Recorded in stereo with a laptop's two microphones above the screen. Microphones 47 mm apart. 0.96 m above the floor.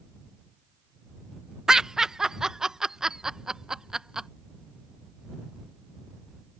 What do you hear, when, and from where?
1.7 s laughter: 15° right (ahead or behind)